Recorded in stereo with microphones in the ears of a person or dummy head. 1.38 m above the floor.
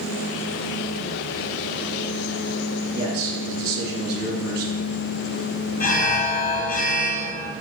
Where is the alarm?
50° left (ahead or behind), 1.4 m.